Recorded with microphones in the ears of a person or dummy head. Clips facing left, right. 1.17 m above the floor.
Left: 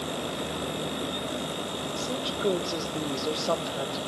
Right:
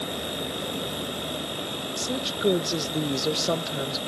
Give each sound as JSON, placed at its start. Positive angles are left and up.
{"t": 2.0, "sound": "a woman speaking", "side_deg": -25, "distance_m": 1.0}